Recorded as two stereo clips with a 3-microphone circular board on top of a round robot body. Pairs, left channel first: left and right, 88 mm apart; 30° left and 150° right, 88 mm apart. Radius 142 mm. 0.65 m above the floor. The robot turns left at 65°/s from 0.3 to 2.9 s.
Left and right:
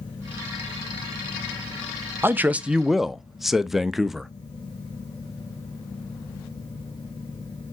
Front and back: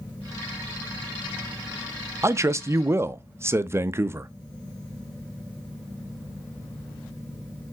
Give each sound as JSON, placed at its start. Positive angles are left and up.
{"t": 2.2, "sound": "a man speaking", "azimuth_deg": -130, "distance_m": 0.5}